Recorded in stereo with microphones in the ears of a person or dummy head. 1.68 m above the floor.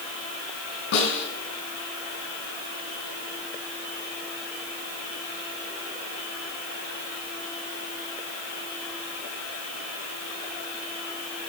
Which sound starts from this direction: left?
A snare drum, at 0.9 s.